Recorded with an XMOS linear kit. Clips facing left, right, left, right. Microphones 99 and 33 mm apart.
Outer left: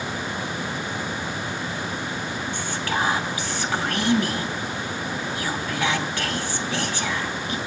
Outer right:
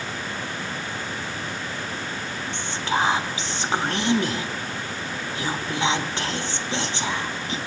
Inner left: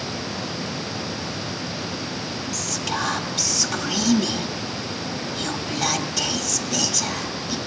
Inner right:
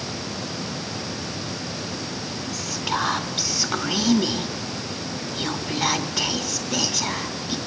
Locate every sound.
2.5 s whispering: 25° right (ahead or behind), 1.0 m